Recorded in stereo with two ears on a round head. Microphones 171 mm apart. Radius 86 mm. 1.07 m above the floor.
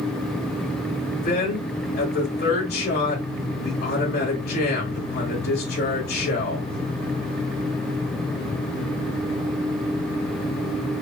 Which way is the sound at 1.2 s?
50° left (ahead or behind).